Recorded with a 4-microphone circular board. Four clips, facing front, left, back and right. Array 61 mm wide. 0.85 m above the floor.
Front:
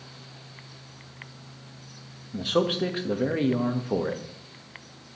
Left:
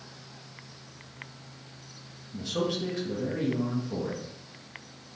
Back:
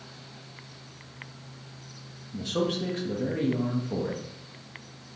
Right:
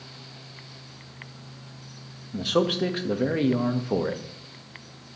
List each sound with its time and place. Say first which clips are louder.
2.3 s a man speaking: right 7 dB, front 4 dB; 60° right, 0.9 m